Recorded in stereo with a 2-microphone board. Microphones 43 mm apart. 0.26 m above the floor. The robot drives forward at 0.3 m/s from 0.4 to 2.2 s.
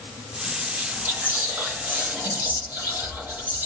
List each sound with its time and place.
0.6 s whispering: 55° right (ahead or behind), 2.0 m; by 3.7 s 45° right (ahead or behind), 2 m